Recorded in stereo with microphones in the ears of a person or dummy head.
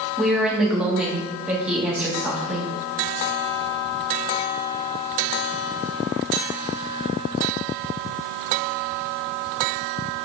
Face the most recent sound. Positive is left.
turn(degrees=-10)  # may be behind; listen again after turning